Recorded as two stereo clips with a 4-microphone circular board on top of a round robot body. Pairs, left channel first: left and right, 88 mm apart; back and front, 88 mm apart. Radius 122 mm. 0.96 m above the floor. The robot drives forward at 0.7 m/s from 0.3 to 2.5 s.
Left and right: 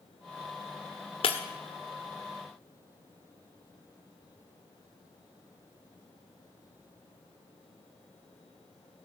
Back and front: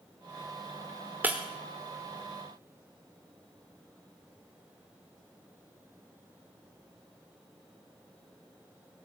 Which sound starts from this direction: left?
Breaking glass, at 1.2 s.